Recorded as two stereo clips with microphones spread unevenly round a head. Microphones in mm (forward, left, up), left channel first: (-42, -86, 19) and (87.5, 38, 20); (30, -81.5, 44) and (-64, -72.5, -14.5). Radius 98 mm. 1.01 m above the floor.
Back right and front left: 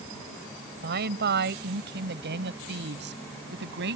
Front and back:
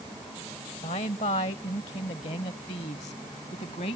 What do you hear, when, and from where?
0.8 s a woman speaking: 20° left; by 4.0 s 25° left